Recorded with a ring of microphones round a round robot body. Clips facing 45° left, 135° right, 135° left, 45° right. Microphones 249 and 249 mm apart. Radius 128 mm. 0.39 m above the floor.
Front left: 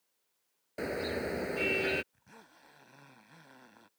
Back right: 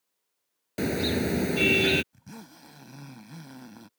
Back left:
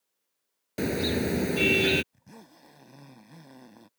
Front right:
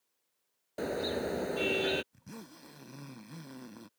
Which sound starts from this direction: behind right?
A zipper, at 2.1 s.